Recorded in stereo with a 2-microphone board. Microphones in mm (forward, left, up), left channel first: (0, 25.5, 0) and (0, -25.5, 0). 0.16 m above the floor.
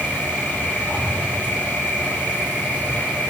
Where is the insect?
35° left (ahead or behind), 7.5 m.